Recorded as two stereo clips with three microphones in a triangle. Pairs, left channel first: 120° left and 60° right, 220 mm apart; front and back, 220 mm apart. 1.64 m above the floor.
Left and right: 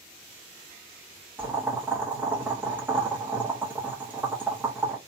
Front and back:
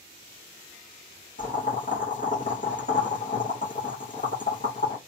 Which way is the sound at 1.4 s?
15° left.